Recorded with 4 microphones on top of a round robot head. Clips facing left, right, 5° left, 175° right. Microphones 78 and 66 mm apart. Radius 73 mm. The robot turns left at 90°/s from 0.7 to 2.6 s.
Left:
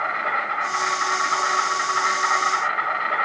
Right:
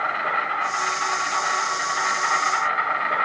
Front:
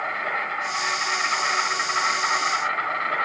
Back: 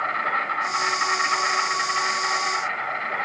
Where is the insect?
165° left, 1.9 m; by 3.2 s 5° right, 1.9 m.